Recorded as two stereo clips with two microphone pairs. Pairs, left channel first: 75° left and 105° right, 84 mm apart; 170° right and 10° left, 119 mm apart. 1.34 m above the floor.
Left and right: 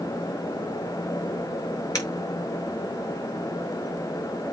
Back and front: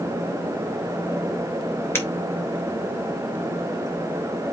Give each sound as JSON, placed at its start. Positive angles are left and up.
{"t": 1.9, "sound": "breaking glass", "azimuth_deg": 120, "distance_m": 5.0}